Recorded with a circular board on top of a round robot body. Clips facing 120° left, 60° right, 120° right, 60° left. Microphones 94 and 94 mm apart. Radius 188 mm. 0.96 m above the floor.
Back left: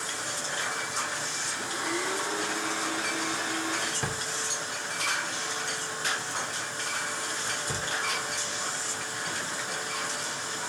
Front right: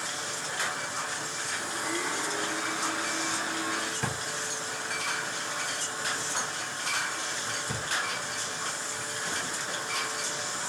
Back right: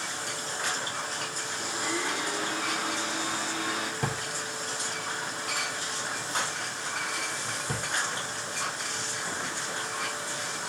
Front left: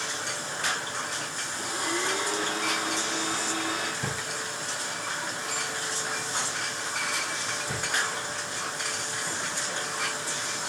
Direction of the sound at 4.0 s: 155° right.